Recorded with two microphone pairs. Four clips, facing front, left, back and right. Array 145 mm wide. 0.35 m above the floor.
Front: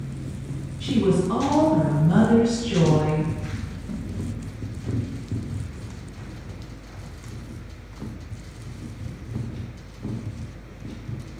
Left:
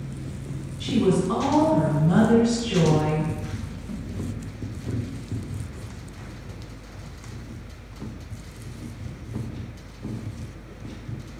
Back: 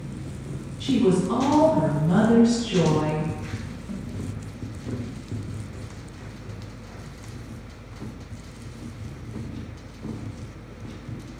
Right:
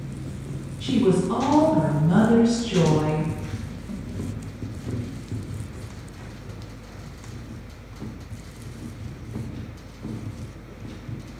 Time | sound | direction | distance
0.8 | a woman speaking | 100° left | 1.6 m